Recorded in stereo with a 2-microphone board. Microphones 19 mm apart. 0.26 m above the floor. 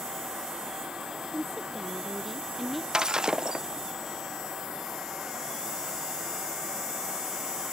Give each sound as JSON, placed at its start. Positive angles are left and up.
{"t": 1.3, "sound": "a woman speaking", "side_deg": 0}
{"t": 2.9, "sound": "breaking glass", "side_deg": -45}